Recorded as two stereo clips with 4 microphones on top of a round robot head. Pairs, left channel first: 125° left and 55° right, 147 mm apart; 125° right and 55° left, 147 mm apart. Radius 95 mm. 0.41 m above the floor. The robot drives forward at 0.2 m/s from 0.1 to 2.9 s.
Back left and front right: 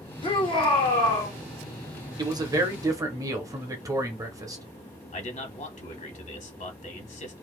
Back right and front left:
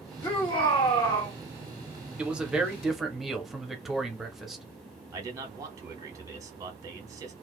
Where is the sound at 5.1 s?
115° left, 1.2 m.